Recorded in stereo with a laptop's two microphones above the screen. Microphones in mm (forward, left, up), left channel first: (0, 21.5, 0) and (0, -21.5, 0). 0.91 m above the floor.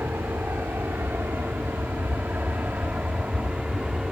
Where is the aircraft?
65° right (ahead or behind); by 4.1 s 20° right (ahead or behind).